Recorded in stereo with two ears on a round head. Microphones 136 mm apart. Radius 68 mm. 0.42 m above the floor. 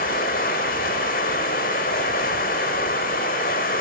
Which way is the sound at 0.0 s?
60° left (ahead or behind).